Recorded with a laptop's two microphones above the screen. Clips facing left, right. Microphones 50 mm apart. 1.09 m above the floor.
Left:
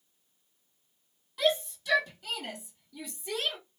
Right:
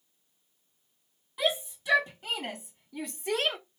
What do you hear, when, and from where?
1.4 s a shout: 20° right (ahead or behind), 1.5 m; by 3.6 s 60° right (ahead or behind), 1.3 m